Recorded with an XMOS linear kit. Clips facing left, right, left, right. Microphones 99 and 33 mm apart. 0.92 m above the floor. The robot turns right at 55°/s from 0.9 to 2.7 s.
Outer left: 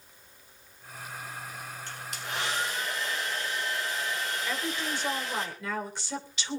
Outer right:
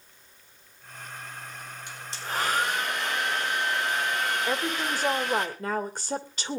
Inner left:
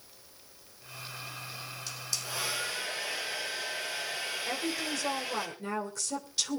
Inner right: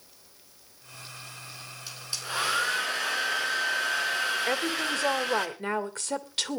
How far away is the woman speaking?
About 3 m.